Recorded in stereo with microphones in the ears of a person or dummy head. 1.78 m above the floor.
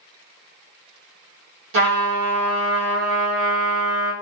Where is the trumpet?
70° right (ahead or behind), 1.3 m.